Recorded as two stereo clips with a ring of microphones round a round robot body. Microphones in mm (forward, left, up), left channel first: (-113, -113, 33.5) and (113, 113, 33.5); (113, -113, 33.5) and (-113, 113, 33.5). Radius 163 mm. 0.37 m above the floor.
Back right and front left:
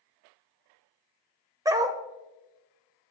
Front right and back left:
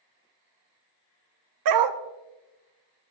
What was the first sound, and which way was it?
A dog barking, 125° left.